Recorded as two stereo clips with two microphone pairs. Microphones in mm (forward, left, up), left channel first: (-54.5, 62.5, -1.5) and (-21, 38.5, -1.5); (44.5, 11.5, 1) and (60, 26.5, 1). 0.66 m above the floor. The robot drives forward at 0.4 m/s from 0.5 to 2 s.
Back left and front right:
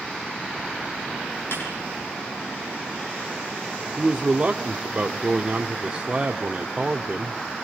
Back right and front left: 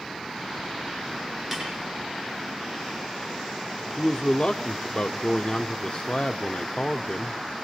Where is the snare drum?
130° left, 8.5 m.